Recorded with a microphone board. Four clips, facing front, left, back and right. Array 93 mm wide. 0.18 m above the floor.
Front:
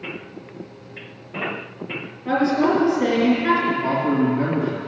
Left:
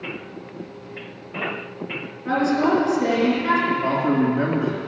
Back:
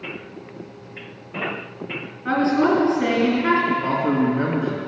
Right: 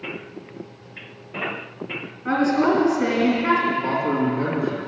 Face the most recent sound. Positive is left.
turn(degrees=145)